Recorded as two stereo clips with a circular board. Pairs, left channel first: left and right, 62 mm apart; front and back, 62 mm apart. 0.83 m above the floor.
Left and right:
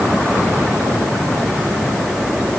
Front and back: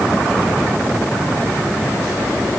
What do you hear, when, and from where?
Only background noise.